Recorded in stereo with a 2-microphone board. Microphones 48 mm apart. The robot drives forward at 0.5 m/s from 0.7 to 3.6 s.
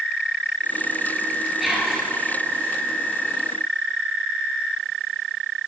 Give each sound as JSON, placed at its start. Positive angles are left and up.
{"t": 1.6, "sound": "whispering", "side_deg": 0, "distance_m": 1.4}